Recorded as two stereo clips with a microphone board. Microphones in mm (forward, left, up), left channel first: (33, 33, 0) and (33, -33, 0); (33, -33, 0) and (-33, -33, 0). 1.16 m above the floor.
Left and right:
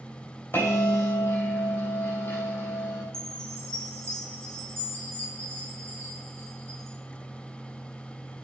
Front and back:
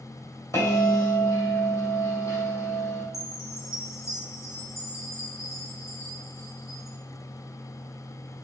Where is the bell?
40° left, 3 m.